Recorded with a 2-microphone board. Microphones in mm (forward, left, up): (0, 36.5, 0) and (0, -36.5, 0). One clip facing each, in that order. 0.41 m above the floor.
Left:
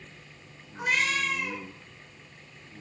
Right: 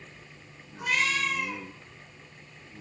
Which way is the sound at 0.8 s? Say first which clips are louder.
Even; 55° left (ahead or behind).